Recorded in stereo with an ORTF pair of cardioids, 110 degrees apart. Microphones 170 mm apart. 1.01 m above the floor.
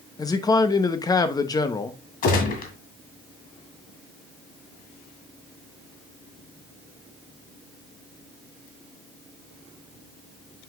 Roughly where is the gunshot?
Ahead left.